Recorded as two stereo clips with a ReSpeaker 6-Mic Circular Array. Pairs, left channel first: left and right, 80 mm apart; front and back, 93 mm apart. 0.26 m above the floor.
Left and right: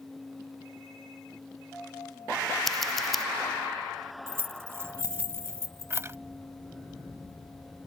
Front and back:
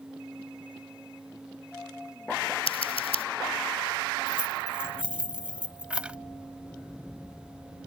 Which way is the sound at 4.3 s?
110° right.